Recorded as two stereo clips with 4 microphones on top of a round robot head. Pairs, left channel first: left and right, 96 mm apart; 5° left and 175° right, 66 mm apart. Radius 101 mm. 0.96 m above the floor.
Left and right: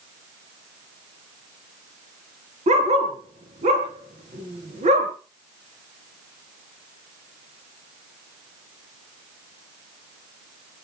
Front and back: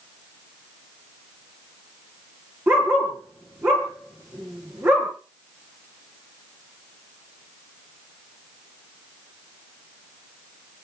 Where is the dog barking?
115° right, 3.5 m.